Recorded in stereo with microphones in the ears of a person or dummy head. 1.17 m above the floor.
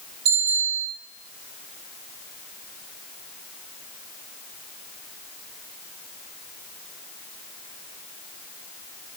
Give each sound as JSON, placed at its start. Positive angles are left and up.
{"t": 0.2, "sound": "a bicycle bell", "side_deg": -65, "distance_m": 7.5}